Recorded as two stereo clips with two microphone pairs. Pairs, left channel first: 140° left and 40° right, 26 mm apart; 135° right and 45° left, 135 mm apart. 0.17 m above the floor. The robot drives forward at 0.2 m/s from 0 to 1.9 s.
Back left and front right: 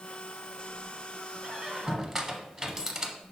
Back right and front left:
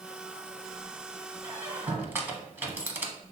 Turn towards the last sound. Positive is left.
turn(degrees=-10)